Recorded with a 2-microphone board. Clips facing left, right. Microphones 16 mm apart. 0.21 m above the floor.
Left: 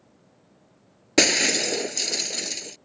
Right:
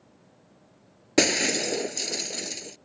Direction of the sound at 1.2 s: 20° left (ahead or behind).